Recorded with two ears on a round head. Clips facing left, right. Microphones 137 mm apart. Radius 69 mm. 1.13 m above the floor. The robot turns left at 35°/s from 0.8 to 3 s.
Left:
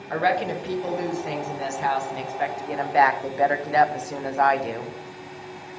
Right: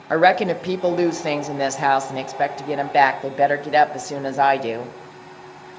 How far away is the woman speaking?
About 0.5 m.